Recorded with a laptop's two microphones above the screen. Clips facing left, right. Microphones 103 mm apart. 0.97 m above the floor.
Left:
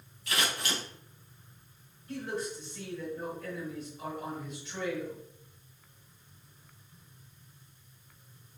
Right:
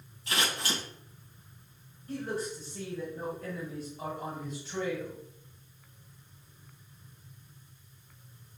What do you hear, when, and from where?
0.3 s scissors: 30° right (ahead or behind), 2.5 m
2.1 s a man speaking: 35° right (ahead or behind), 1.7 m